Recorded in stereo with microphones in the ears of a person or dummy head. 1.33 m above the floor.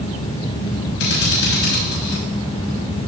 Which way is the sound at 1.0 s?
70° left (ahead or behind).